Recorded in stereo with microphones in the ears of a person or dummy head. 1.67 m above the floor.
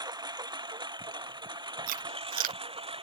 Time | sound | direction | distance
0.0 | a lawn mower | 20° right (ahead or behind) | ?
1.9 | chewing | 50° right (ahead or behind) | ?